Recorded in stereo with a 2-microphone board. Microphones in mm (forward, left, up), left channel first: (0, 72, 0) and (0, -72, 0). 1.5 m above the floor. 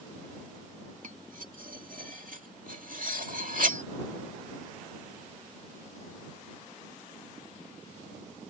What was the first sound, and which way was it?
Cutlery clinking, 70° right (ahead or behind).